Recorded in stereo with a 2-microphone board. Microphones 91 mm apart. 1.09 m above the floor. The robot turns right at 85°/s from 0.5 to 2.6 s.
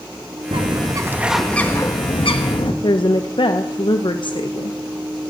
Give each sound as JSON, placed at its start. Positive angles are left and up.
{"t": 0.5, "sound": "a bird", "azimuth_deg": -75, "distance_m": 1.4}
{"t": 2.8, "sound": "a woman speaking", "side_deg": 60, "distance_m": 0.8}